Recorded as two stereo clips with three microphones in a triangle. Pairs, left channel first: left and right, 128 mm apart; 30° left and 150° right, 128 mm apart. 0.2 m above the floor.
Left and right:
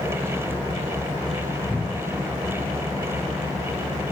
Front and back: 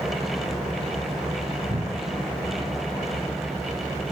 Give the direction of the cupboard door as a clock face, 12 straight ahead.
6 o'clock.